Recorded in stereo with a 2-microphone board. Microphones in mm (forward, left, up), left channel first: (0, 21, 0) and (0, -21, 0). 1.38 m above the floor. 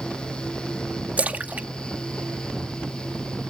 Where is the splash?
40° right (ahead or behind).